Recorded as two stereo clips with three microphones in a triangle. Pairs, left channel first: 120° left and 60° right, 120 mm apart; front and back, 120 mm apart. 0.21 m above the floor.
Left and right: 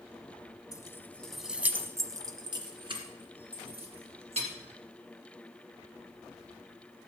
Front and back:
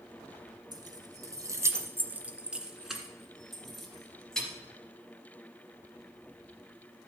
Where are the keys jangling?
160° left, 1.1 m; by 4.5 s 85° right, 3 m.